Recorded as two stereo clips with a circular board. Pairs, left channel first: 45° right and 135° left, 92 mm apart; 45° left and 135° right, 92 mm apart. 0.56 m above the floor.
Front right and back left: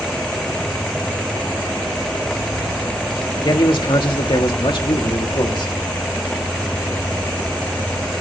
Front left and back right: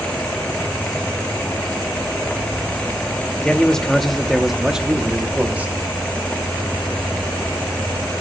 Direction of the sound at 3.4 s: 30° right.